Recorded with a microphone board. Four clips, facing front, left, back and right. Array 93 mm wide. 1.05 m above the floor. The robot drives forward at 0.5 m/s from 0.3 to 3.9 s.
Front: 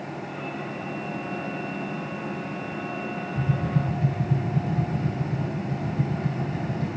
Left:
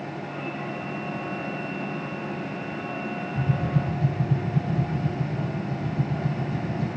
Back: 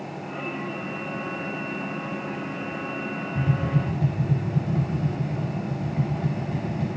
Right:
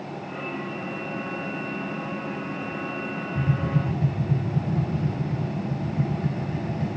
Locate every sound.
3.4 s tapping: 150° right, 6.5 m